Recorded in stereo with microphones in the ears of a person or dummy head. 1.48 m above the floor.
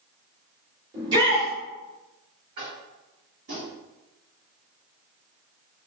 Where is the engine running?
I don't hear an engine running.